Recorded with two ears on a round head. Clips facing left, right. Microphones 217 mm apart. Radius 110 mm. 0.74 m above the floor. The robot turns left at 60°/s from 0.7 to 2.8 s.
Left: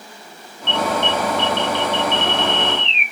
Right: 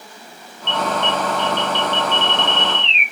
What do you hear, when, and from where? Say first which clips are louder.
0.7 s an alarm: left 1 dB; 45° left, 2.5 m; by 3.0 s 80° right, 2.5 m